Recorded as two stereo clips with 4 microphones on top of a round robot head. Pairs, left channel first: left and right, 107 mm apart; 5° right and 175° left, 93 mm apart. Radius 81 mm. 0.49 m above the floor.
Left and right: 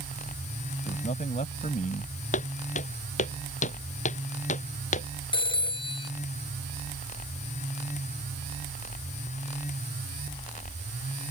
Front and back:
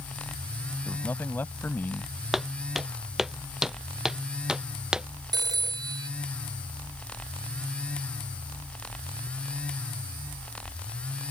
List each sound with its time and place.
0.8 s a man speaking: 65° left
2.3 s footsteps: 85° left; by 5.1 s 90° left
5.3 s a phone ringing: 130° left